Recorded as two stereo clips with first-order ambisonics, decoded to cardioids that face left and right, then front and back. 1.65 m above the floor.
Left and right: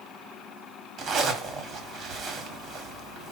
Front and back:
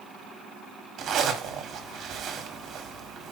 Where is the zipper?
135° right, 1.6 m.